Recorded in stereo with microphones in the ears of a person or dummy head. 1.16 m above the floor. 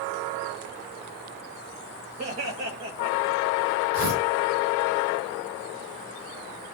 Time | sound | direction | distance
2.2 | laughter | 35° right (ahead or behind) | 2.5 m
3.9 | tearing paper | 85° right | 5 m